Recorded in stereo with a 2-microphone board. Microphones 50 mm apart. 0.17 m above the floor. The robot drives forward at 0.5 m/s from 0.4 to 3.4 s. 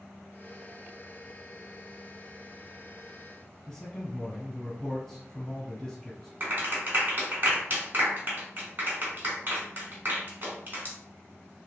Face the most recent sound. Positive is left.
turn(degrees=-40)  # may be behind; listen again after turning